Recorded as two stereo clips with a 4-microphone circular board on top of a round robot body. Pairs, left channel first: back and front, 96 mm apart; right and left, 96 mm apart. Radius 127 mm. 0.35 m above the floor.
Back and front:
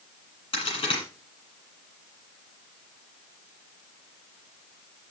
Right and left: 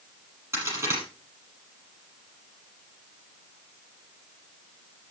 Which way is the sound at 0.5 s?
150° left.